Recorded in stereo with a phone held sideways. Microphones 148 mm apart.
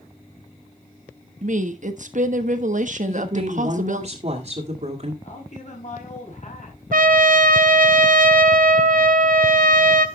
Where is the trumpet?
70° right (ahead or behind), 0.9 m.